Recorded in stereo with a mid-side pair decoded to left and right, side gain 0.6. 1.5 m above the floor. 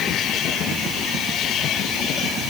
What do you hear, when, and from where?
Only background noise.